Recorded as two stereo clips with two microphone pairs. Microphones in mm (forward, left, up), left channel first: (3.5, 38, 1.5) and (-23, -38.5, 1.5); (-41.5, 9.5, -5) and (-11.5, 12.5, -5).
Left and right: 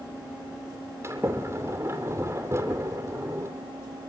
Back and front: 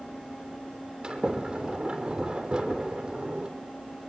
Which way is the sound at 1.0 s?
50° right.